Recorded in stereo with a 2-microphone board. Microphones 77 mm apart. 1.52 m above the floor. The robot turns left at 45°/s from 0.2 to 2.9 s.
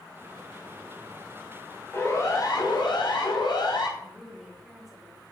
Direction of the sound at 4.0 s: 5° right (ahead or behind).